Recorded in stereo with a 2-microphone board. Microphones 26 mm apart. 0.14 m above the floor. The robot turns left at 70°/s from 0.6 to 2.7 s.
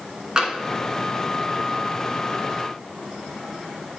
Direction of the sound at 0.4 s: 30° right (ahead or behind).